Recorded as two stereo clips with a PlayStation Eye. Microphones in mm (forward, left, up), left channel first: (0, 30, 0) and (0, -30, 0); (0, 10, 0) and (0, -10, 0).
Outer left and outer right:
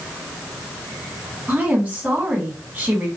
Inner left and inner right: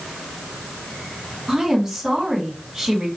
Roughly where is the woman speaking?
Right.